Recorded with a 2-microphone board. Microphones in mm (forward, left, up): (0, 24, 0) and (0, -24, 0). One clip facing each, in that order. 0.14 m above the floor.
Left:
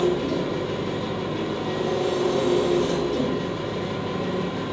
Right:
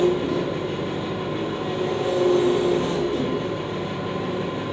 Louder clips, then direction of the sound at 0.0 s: Right 2 dB; 20° right (ahead or behind).